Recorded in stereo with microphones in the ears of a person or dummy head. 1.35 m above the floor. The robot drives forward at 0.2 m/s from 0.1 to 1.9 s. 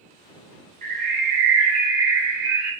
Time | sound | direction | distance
0.8 | a bird | 40° right (ahead or behind) | 0.7 m